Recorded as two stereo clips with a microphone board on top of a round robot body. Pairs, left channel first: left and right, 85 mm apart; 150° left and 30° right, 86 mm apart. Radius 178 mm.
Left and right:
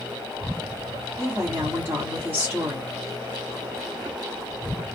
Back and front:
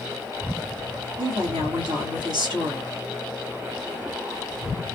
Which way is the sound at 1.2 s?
30° right.